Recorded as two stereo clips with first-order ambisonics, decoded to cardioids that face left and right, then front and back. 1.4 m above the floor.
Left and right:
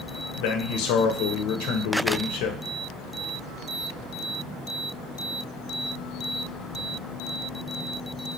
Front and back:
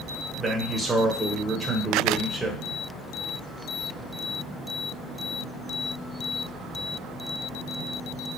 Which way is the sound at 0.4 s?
100° left.